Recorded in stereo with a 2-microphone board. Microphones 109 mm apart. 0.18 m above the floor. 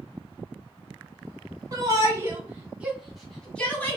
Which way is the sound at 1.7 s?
35° right (ahead or behind).